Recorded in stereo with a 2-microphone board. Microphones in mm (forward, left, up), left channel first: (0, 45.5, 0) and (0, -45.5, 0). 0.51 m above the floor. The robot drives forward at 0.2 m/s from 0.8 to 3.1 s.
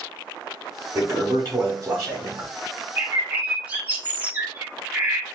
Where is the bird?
20° right (ahead or behind), 0.7 m.